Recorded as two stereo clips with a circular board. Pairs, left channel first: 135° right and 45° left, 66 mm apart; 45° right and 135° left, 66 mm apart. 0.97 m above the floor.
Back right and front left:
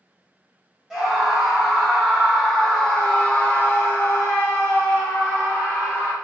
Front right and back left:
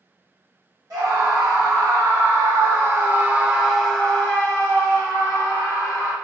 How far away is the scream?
About 1.7 m.